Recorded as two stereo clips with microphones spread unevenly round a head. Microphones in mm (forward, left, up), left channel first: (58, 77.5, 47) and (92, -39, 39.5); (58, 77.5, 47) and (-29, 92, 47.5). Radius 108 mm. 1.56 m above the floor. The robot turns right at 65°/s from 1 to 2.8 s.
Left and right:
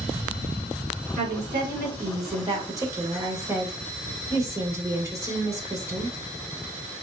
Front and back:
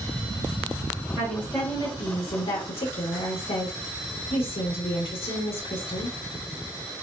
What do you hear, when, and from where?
1.2 s a woman speaking: 115° right, 2.0 m; by 6.1 s 10° right, 2.0 m